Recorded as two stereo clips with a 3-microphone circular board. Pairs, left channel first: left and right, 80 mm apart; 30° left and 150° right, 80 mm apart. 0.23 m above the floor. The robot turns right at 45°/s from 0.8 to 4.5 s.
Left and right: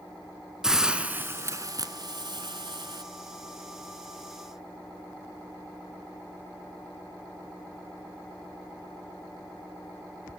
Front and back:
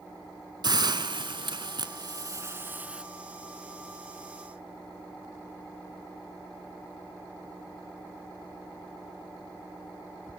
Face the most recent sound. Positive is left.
turn(degrees=-5)